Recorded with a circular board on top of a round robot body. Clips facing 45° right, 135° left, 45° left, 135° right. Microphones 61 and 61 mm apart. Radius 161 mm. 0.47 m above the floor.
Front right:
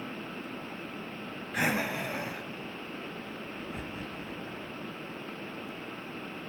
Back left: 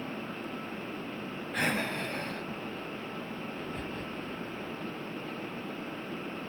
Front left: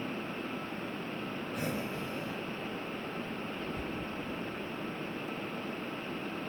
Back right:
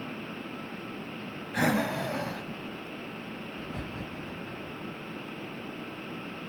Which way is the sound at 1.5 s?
125° right.